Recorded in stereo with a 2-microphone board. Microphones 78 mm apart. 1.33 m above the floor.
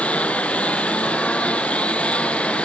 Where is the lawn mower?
15° left (ahead or behind).